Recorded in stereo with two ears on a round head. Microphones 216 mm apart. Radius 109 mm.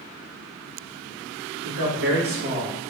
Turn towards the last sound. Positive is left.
turn(degrees=-25)  # may be behind; listen again after turning